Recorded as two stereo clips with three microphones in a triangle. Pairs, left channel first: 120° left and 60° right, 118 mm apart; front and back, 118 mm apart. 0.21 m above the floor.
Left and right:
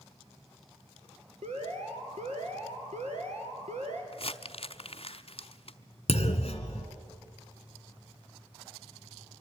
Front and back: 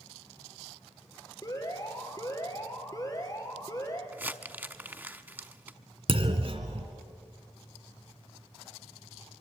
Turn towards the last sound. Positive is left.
turn(degrees=150)